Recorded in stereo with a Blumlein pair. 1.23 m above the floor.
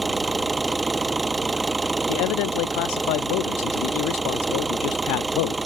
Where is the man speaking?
45° left.